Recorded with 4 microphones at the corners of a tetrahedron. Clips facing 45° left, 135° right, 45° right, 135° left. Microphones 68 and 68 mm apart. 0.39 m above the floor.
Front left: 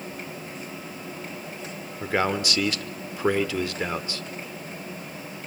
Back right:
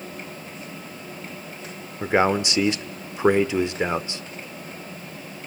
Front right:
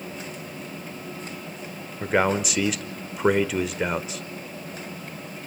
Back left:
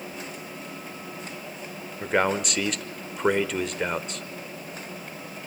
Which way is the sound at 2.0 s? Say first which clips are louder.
Back right 5 dB, front right 2 dB; 125° right.